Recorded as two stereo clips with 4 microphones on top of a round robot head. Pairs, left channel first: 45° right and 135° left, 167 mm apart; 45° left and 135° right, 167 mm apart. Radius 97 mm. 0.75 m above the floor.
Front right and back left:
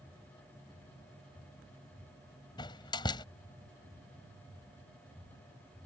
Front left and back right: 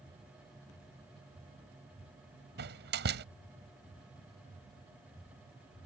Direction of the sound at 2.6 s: 110° right.